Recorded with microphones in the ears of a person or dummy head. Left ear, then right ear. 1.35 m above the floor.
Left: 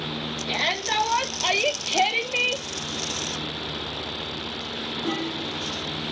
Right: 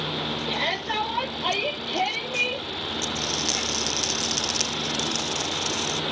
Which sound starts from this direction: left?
A shout, at 0.5 s.